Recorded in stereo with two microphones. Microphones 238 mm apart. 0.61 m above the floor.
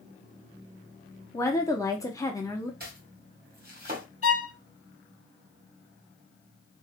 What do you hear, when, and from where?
1.3 s a woman speaking: 15° left (ahead or behind), 0.8 m
2.8 s chopping: 40° right (ahead or behind), 1.5 m
4.2 s a violin: 70° left (ahead or behind), 0.5 m